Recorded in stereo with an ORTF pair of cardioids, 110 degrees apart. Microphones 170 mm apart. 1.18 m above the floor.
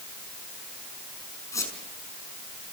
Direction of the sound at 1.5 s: 20° left.